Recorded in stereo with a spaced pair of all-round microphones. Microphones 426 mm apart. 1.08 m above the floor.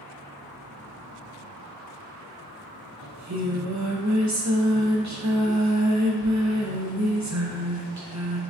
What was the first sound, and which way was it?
Singing, 40° right (ahead or behind).